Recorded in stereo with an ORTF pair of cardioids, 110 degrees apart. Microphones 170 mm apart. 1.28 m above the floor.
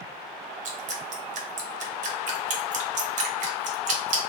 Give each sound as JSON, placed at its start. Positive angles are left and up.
{"t": 0.7, "sound": "dripping", "azimuth_deg": -50, "distance_m": 0.9}